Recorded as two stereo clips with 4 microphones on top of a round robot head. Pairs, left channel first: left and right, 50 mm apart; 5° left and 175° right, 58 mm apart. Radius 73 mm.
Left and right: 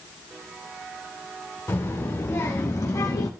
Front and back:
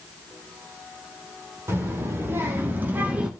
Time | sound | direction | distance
1.7 | a child speaking | 140° left | 2.5 m